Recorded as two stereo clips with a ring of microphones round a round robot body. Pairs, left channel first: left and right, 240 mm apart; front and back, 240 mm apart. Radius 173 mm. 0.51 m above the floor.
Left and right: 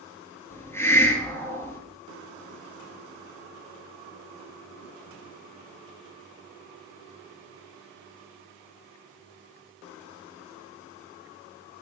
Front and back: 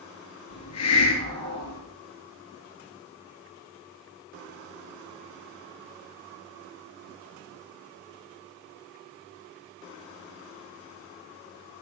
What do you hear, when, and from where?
0.5 s a hiss: 10° left, 3.5 m